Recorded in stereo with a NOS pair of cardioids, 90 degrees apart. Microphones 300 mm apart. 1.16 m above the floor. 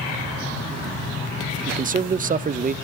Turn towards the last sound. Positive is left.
turn(degrees=-25)